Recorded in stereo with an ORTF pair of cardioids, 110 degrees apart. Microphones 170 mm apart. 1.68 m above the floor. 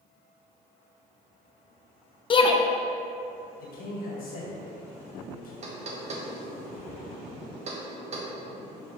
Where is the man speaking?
60° left, 1.7 m.